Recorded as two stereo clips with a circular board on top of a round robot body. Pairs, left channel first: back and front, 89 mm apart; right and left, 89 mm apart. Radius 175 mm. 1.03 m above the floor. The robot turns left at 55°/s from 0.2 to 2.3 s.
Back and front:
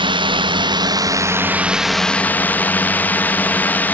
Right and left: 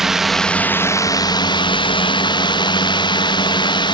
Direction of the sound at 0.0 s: 5° left.